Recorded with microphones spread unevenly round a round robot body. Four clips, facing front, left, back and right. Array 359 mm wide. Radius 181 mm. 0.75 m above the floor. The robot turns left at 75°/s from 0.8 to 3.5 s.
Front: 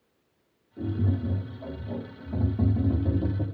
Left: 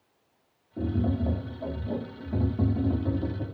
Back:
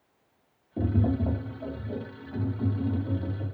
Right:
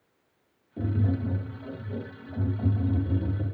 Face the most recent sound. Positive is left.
turn(degrees=-30)